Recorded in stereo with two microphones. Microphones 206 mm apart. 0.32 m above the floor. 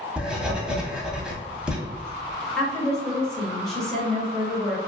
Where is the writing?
5° right (ahead or behind), 0.6 m.